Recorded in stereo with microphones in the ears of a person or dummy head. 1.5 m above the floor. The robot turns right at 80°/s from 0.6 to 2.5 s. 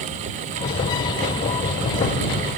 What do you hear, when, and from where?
Only background noise.